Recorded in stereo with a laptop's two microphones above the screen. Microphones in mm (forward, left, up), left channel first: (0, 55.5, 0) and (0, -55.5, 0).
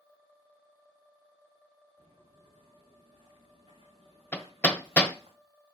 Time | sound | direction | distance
2.0 | footsteps | 80° right | 5 m
4.3 | hammering | 15° left (ahead or behind) | 1.1 m